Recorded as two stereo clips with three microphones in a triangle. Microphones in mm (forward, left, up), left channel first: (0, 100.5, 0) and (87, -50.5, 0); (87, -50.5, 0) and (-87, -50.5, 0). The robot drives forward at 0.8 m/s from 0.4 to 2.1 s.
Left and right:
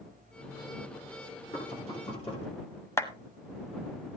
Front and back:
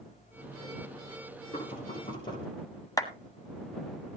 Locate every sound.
1.5 s knocking: 60° left, 7.5 m; by 2.5 s 65° left, 7.5 m
3.0 s a clap: 55° left, 1.2 m